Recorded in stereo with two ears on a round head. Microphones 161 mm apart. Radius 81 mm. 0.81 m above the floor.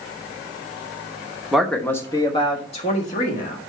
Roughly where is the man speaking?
Centre.